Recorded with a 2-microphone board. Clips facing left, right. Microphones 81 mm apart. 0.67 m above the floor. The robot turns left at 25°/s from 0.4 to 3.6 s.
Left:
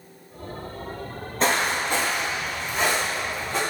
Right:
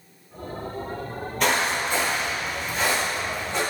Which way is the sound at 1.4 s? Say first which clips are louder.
Even; 30° left (ahead or behind).